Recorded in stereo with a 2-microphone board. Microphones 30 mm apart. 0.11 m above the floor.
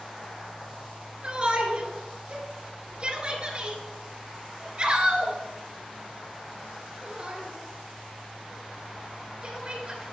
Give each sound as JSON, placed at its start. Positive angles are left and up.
{"t": 1.2, "sound": "a shout", "side_deg": -35, "distance_m": 1.9}